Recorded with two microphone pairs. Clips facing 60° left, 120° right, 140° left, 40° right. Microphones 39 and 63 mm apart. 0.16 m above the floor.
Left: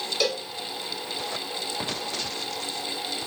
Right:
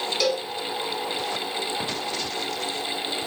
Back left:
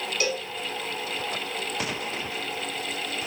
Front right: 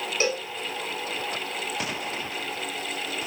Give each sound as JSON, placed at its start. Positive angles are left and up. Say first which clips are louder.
{"t": 0.2, "sound": "a cowbell", "louder": "right 2 dB, front right 2 dB", "azimuth_deg": -20, "distance_m": 0.7}